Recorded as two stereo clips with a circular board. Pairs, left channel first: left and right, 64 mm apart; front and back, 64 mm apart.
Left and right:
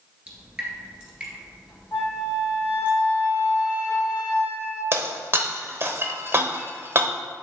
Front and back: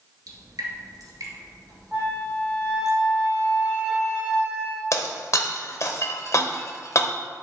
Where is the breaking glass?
40° right, 0.8 m.